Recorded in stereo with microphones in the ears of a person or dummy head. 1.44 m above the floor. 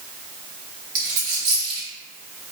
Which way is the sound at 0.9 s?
45° right (ahead or behind).